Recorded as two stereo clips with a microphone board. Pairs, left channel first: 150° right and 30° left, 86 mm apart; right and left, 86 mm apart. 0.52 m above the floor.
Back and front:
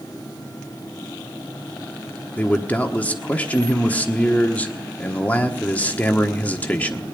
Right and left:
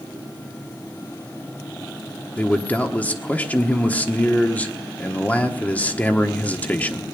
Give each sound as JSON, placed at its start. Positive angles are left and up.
{"t": 2.4, "sound": "a man speaking", "azimuth_deg": -120, "distance_m": 1.2}